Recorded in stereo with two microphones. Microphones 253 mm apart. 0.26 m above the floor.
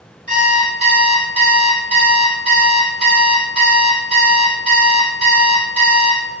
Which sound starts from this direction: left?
An alarm clock, at 0.3 s.